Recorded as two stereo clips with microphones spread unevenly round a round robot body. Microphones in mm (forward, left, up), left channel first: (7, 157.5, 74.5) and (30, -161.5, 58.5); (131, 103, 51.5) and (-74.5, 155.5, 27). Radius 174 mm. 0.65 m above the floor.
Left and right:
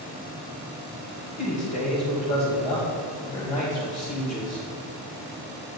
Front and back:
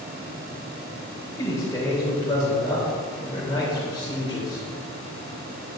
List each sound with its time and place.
1.4 s a man speaking: 60° left, 3 m